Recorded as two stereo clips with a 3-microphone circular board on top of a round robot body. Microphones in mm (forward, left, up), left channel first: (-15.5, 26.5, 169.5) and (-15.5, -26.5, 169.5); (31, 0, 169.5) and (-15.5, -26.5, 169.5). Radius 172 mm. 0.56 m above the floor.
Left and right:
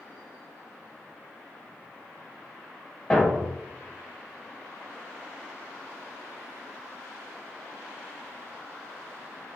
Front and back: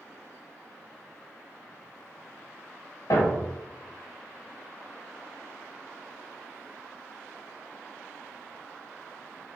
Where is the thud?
15° left, 0.8 m.